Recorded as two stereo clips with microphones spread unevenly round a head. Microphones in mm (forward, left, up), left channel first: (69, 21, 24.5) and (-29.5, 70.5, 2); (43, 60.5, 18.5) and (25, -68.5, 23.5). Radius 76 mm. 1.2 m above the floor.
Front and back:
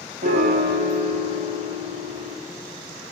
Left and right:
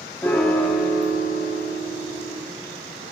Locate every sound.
0.2 s a piano: 160° left, 1.2 m